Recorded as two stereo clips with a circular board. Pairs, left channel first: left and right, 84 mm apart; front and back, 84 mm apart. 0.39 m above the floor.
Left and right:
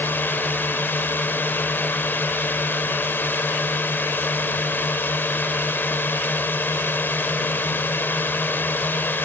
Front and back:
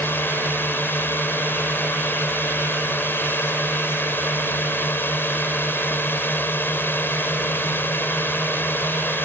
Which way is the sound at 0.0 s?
45° left.